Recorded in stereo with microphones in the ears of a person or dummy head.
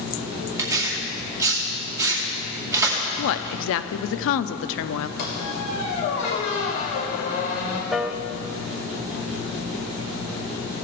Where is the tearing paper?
20° right (ahead or behind), 2 m.